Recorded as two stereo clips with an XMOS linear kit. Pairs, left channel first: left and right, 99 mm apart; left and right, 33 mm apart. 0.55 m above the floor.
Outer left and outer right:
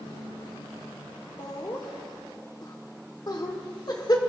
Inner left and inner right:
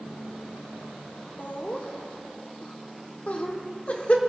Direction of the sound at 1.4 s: 45° left (ahead or behind).